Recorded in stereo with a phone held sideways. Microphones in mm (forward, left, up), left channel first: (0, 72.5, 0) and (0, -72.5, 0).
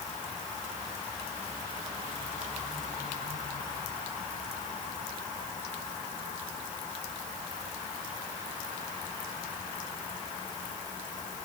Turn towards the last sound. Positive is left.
No sound to turn to.